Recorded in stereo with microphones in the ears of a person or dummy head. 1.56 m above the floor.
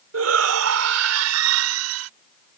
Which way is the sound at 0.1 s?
85° right.